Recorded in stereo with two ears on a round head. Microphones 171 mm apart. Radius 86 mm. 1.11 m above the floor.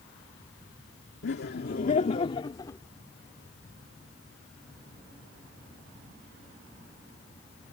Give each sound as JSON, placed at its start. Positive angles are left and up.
{"t": 1.2, "sound": "laughter", "side_deg": 65}